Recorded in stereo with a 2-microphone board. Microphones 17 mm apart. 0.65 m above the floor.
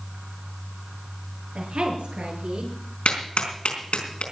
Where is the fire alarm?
I don't hear a fire alarm.